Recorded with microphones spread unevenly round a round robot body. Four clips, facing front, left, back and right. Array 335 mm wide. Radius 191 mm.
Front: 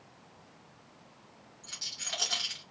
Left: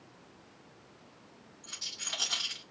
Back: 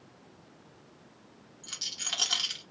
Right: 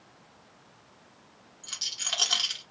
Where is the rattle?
175° right, 1.2 m.